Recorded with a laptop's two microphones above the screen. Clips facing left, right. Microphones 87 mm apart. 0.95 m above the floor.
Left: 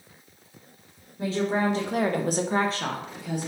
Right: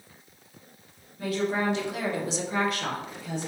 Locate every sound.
1.2 s a woman speaking: 25° left (ahead or behind), 1.0 m; by 3.5 s 15° left (ahead or behind), 1.3 m